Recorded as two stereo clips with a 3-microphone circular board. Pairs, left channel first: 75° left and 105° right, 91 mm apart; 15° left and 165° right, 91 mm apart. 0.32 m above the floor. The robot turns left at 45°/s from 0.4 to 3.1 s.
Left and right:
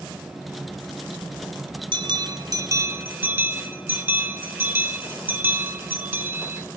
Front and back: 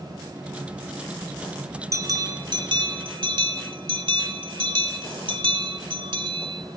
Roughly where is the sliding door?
No sliding door in this recording.